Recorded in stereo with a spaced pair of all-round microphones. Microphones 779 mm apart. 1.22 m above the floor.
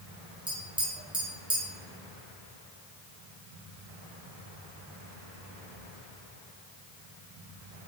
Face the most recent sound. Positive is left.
turn(degrees=-5)  # may be behind; listen again after turning